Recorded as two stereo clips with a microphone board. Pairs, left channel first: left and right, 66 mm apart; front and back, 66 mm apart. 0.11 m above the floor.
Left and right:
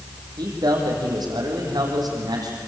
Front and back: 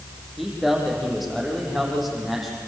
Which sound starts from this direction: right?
A man speaking, at 0.4 s.